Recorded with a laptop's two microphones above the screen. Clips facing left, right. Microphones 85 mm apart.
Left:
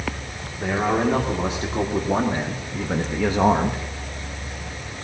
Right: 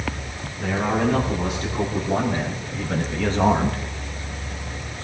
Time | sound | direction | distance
0.6 | a man speaking | 30° left (ahead or behind) | 2 m